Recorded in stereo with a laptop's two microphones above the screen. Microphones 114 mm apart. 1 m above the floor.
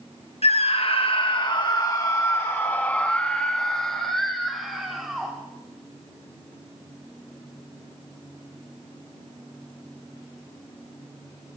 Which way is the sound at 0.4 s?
60° left (ahead or behind).